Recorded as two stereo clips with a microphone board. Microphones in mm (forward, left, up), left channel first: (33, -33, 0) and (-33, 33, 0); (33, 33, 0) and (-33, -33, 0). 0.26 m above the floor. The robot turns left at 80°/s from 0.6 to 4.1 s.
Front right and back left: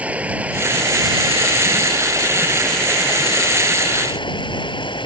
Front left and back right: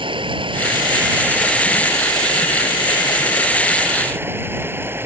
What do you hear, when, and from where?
0.0 s running water: 150° right; by 5.0 s 70° right